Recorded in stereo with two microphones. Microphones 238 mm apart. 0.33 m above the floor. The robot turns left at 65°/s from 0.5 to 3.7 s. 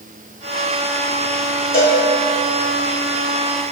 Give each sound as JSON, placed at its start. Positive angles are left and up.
{"t": 1.7, "sound": "a cowbell", "side_deg": 50, "distance_m": 5.5}